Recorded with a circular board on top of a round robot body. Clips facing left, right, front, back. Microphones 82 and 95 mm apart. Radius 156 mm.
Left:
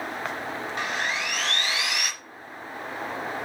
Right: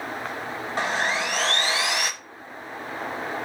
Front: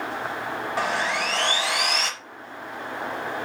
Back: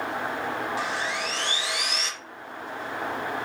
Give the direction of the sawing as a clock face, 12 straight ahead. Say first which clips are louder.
Right 5 dB, front 4 dB; 1 o'clock.